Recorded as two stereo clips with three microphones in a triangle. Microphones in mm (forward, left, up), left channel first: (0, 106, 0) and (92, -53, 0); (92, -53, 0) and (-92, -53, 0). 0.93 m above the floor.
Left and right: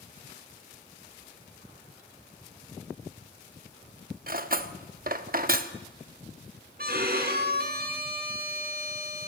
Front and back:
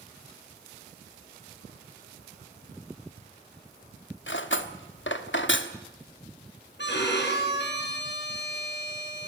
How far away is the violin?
About 3.5 m.